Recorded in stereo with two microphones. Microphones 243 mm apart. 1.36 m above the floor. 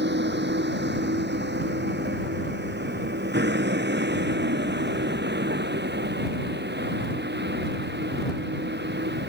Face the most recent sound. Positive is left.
turn(degrees=-45)  # may be behind; listen again after turning